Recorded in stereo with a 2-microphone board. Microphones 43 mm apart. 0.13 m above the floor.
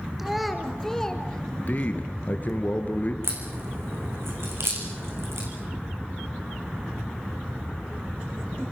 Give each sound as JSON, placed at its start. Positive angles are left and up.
{"t": 0.2, "sound": "a child speaking", "side_deg": -5, "distance_m": 1.8}
{"t": 1.7, "sound": "a man speaking", "side_deg": 40, "distance_m": 2.0}
{"t": 3.2, "sound": "a crack", "side_deg": -75, "distance_m": 4.5}